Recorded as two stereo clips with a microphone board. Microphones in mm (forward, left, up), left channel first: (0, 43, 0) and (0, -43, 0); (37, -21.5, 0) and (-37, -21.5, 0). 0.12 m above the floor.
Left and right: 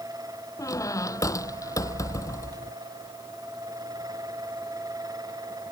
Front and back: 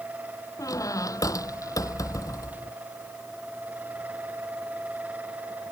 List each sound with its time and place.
0.6 s a squeak: 40° left